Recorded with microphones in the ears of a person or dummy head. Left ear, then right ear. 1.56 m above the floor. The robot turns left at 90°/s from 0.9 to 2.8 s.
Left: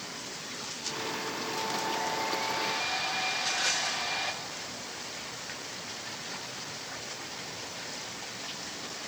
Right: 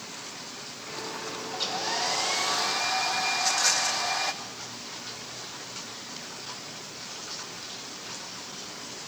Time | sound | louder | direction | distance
1.5 | a hair dryer | right 4 dB | 40° right | 1.5 m
3.3 | a rattle | right 4 dB | 25° right (ahead or behind) | 1.9 m